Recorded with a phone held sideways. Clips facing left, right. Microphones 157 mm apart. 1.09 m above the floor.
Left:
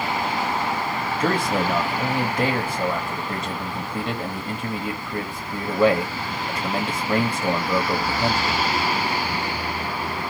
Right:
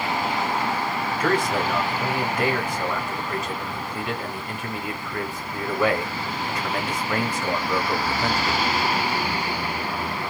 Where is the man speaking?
35° left (ahead or behind), 1.1 m.